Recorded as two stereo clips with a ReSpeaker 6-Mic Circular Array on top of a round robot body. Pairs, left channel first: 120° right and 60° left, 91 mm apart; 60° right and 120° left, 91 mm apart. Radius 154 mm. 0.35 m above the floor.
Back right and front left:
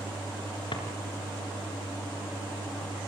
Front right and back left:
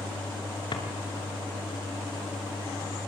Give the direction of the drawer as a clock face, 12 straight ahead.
3 o'clock.